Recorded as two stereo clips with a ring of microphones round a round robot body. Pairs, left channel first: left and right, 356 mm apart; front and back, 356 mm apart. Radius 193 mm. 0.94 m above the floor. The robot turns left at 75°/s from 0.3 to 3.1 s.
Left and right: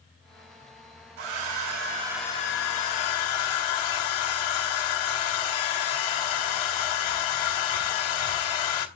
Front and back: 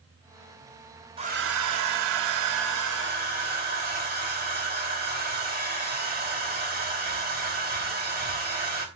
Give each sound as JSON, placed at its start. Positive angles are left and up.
{"t": 1.2, "sound": "a hair dryer", "azimuth_deg": -105, "distance_m": 2.5}